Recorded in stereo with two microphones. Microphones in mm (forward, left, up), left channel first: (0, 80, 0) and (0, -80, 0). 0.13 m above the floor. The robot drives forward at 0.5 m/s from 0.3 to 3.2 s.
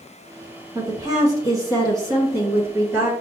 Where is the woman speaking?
25° right (ahead or behind), 1.6 m; by 3.1 s 15° right (ahead or behind), 2 m.